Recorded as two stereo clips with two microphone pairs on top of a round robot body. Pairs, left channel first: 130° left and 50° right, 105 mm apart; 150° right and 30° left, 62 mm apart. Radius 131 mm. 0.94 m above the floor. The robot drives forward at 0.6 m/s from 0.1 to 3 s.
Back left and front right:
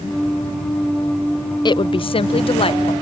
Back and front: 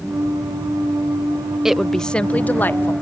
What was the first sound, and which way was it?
A woman speaking, 100° left.